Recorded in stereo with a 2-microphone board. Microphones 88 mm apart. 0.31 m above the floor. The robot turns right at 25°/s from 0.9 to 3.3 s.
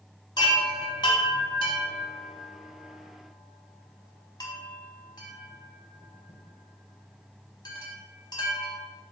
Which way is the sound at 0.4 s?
55° left (ahead or behind).